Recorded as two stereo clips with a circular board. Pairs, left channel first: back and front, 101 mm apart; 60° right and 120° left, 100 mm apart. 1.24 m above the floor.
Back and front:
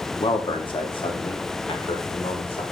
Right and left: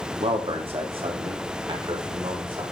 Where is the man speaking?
140° left, 2.5 m; by 2.6 s 155° left, 5.5 m.